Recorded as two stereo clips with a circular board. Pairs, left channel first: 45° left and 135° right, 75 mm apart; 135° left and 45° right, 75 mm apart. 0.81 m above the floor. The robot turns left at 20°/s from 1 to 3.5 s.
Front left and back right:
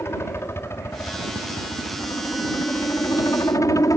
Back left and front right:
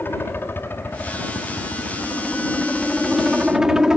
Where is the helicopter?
85° left; by 4.0 s 35° left.